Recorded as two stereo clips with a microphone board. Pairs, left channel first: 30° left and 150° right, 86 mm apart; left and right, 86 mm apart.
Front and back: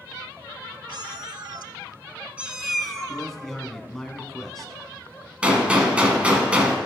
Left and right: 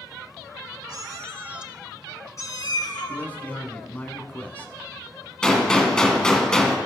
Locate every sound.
0.9 s a cat meowing: 125° right, 0.7 m; by 3.2 s 115° left, 1.0 m
3.1 s a man speaking: 110° left, 1.0 m
5.4 s a gunshot: 155° left, 1.4 m